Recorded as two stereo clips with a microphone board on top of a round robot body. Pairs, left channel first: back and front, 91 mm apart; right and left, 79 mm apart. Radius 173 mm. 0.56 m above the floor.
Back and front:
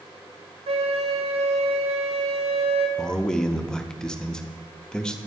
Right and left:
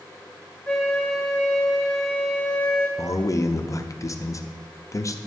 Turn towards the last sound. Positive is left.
turn(degrees=-100)